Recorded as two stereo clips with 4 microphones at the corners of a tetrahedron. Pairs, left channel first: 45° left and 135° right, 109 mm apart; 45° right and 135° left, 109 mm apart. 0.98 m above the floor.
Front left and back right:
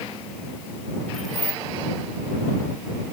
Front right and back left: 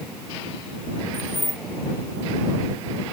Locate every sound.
1.1 s keys jangling: 45° right